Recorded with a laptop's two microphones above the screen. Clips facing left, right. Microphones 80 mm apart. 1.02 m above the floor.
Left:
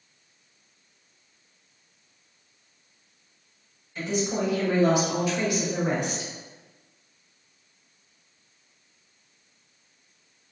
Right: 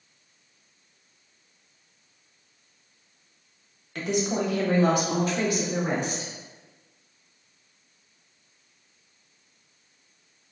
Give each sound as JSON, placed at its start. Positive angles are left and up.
{"t": 4.0, "sound": "a woman speaking", "side_deg": -70, "distance_m": 0.8}